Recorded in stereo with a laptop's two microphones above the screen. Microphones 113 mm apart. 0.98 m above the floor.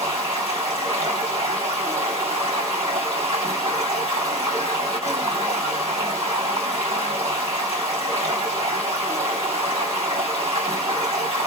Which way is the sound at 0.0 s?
65° right (ahead or behind).